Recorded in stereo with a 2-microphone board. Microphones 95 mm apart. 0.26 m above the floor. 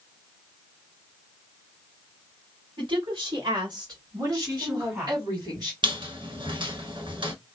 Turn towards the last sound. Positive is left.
turn(degrees=-60)  # may be behind; listen again after turning